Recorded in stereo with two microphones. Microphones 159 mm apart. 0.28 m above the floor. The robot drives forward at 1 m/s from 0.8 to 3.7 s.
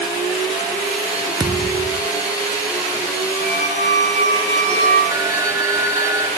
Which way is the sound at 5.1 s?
20° right (ahead or behind).